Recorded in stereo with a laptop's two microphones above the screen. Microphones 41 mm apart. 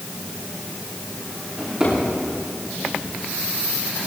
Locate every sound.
1.6 s a drawer: 15° right (ahead or behind), 7 m